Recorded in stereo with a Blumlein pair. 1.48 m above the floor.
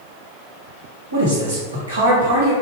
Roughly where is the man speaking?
Right.